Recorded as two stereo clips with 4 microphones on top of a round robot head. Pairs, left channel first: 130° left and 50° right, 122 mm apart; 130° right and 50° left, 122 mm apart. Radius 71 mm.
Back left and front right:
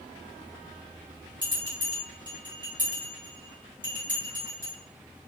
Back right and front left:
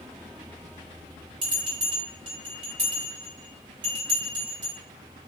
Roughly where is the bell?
Ahead.